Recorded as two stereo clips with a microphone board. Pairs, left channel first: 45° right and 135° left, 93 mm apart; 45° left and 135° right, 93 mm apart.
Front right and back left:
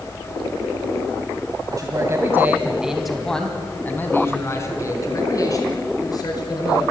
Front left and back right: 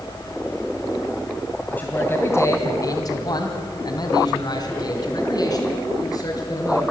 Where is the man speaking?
110° left, 2.0 m; by 6.8 s 5° right, 5 m.